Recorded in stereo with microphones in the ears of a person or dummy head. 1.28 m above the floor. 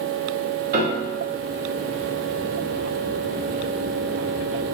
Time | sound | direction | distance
0.7 | a piano | 45° right (ahead or behind) | 0.6 m